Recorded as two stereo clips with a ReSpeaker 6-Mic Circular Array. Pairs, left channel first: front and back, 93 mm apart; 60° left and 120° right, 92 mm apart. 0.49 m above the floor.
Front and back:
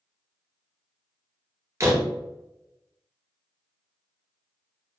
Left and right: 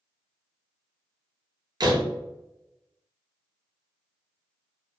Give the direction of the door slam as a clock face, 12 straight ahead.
5 o'clock.